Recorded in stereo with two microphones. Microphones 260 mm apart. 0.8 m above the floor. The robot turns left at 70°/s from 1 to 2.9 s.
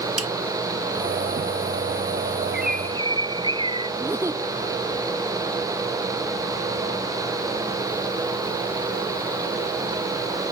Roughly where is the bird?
Right.